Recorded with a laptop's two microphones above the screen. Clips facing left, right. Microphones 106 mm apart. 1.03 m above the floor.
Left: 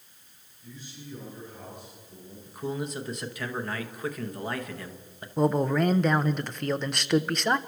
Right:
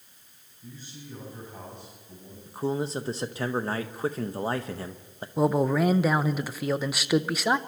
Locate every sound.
0.6 s a man speaking: 45° right (ahead or behind), 7.5 m; by 2.4 s 55° right (ahead or behind), 7.5 m
2.5 s a man speaking: 30° right (ahead or behind), 0.7 m
5.4 s a man speaking: 5° right (ahead or behind), 0.6 m